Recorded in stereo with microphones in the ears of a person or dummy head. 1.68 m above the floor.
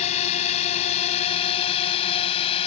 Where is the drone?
35° left (ahead or behind); by 2.7 s 30° left (ahead or behind).